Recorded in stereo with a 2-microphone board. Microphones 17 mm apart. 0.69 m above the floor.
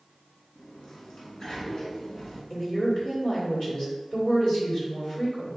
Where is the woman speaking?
50° left (ahead or behind), 1.9 m.